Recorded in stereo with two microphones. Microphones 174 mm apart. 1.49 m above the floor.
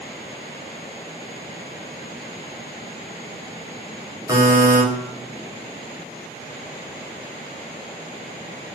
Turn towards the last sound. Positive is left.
turn(degrees=-20)  # may be behind; listen again after turning